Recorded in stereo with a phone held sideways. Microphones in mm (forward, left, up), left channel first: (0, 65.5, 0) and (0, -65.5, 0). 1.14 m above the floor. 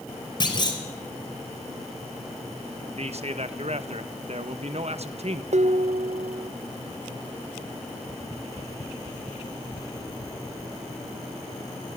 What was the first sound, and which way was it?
A clunk, 40° left (ahead or behind).